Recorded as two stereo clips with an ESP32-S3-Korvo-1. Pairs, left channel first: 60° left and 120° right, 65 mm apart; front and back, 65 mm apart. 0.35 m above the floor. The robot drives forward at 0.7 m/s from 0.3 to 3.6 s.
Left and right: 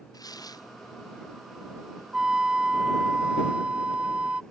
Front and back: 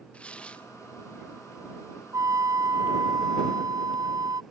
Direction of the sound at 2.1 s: 160° left.